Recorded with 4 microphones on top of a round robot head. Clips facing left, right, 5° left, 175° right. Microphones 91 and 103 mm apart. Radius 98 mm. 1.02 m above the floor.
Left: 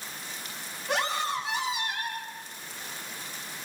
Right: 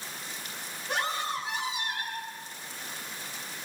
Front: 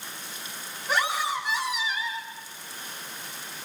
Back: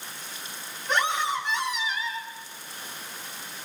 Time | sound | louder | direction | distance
0.9 | a scream | left 3 dB, back 1 dB | 85° left | 8 m